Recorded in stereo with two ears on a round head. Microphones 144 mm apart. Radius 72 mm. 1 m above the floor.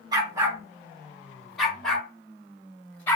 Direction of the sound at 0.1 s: 25° right (ahead or behind).